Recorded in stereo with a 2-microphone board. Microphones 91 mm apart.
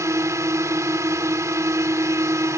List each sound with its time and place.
0.0 s a drone: 35° right (ahead or behind)